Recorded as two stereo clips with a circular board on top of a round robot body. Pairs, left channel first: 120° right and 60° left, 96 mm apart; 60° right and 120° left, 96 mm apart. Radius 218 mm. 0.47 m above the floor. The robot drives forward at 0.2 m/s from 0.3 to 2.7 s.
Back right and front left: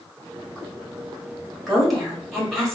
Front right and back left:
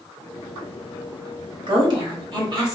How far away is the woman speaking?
About 1.4 m.